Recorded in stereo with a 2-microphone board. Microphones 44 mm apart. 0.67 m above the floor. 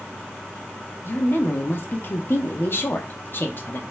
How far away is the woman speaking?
About 0.9 m.